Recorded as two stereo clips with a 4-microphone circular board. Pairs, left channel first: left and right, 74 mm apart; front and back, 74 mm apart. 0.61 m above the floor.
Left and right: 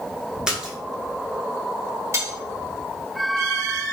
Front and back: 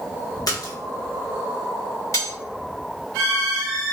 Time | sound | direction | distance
0.5 | a splash | 10° right | 0.9 m
2.1 | cutlery clinking | 40° right | 0.9 m